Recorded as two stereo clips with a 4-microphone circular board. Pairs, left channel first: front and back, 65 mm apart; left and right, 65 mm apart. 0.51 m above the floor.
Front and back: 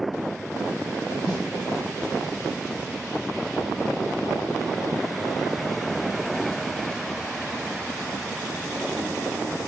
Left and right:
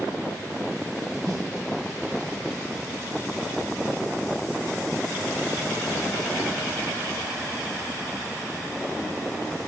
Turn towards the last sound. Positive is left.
turn(degrees=-80)